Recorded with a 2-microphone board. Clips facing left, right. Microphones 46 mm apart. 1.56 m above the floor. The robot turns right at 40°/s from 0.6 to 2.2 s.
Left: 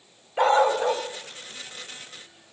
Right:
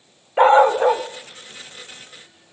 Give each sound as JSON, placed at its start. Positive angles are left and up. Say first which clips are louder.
{"t": 0.4, "sound": "a dog barking", "louder": "right 7 dB", "side_deg": -25, "distance_m": 1.3}